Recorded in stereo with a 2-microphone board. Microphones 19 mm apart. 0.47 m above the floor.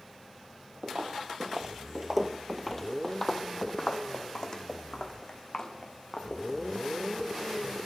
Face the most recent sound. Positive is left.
turn(degrees=50)  # may be behind; listen again after turning